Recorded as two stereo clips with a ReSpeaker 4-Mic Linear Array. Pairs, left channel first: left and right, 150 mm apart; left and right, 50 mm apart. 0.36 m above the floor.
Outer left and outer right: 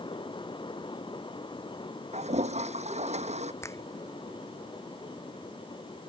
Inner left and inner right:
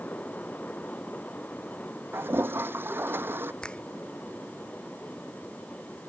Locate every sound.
2.1 s a toilet flushing: 50° right (ahead or behind)
3.6 s a finger snap: 20° left (ahead or behind)